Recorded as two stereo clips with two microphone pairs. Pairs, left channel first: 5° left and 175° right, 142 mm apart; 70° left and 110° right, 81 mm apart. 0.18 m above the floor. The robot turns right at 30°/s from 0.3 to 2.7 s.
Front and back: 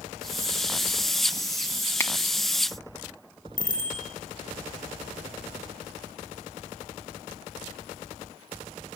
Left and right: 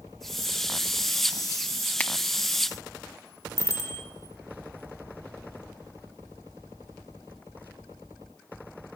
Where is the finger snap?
30° left, 0.8 m; by 2.1 s 35° left, 0.8 m.